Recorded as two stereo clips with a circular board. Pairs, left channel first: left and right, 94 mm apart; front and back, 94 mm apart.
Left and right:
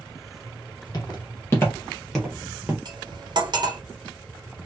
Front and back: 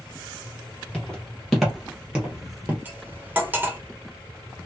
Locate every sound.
0.9 s footsteps: 75° left, 1.6 m; by 2.8 s 130° right, 1.3 m
2.9 s cutlery clinking: 115° right, 0.8 m